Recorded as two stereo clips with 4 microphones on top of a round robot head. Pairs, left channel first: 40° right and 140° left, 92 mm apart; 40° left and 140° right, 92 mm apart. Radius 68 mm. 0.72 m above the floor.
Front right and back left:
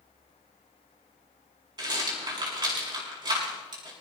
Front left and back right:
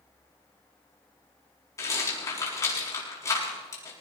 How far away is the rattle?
About 6.5 m.